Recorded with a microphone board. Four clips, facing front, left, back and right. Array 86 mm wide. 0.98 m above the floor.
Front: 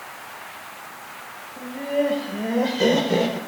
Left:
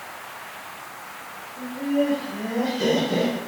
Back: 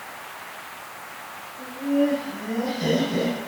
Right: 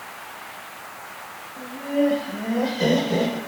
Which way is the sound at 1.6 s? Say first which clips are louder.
Even, back 1 dB; 15° right.